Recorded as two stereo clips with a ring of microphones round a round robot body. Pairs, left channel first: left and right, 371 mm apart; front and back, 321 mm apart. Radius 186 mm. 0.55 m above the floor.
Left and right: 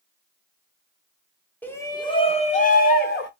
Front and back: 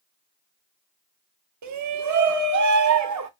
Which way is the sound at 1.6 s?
175° left.